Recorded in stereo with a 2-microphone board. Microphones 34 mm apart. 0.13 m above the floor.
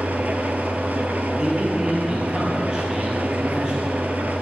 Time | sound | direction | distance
0.0 | an engine running | 60° right (ahead or behind) | 0.8 m
1.4 | a man speaking | 25° right (ahead or behind) | 3 m